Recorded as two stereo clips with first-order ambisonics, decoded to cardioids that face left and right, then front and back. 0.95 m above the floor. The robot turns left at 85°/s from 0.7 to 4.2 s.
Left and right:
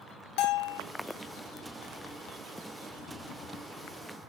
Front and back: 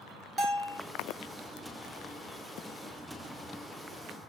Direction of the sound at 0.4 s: 105° left.